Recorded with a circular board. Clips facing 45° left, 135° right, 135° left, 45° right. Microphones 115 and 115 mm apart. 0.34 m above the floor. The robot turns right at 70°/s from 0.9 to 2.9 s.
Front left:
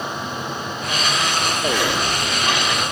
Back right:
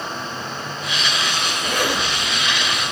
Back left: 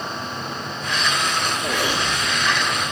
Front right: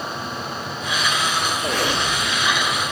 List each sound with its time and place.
1.6 s a zipper: 110° right, 4.5 m; by 2.8 s 25° right, 4.5 m